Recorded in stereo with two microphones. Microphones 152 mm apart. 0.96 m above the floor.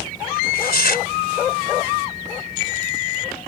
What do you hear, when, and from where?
0.4 s tearing paper: 85° left